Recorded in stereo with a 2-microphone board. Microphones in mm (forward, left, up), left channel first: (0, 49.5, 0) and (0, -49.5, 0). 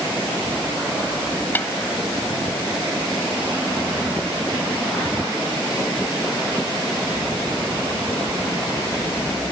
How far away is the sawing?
No sawing in this recording.